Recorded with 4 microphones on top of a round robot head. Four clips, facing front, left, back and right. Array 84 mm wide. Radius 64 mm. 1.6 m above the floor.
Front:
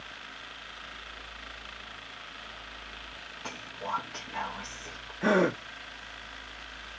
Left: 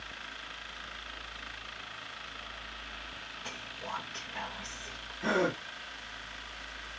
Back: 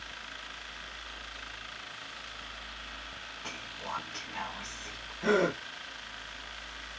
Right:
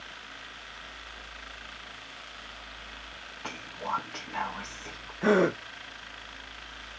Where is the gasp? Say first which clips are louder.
Right 6 dB, front 2 dB; 50° right, 1.1 m.